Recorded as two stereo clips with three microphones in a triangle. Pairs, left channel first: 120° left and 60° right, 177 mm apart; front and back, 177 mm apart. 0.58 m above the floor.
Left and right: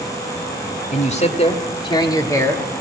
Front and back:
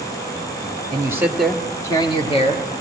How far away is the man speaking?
About 1.4 m.